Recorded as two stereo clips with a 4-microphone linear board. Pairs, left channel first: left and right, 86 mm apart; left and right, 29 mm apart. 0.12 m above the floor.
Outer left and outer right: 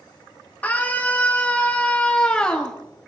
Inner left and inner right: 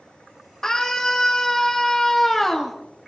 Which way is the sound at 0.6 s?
15° left (ahead or behind).